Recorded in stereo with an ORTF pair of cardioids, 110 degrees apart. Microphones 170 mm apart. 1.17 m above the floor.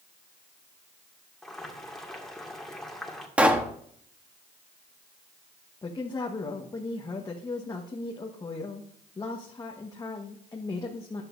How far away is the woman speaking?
About 1.3 m.